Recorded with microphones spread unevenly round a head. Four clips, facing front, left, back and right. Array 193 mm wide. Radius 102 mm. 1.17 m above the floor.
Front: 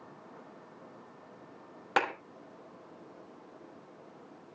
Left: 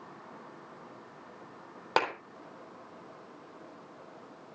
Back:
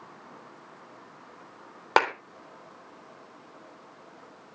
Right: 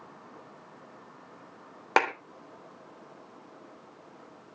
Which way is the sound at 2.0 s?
150° right.